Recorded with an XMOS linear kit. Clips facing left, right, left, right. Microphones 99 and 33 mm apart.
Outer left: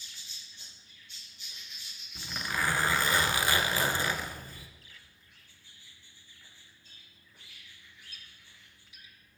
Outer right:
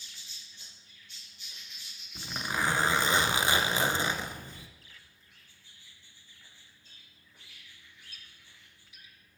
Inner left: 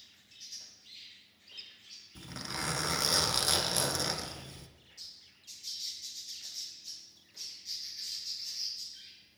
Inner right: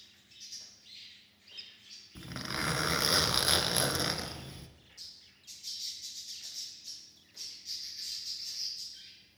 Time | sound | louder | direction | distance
2.1 | a zipper | outer right 1 dB, inner right 3 dB | 20° right (ahead or behind) | 0.7 m